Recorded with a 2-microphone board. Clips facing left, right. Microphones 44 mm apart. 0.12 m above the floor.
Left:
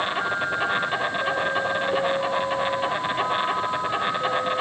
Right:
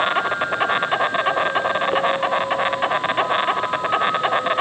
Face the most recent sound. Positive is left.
turn(degrees=-35)  # may be behind; listen again after turning